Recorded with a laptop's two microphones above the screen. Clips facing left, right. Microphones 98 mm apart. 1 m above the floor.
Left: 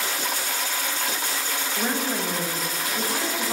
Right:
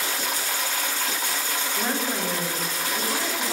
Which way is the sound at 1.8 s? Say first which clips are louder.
Left 1 dB; 10° left (ahead or behind).